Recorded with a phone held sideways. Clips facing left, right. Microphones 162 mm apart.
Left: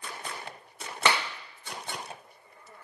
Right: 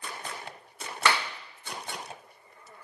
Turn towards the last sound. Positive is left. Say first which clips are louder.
# even
turn(degrees=20)  # may be behind; listen again after turning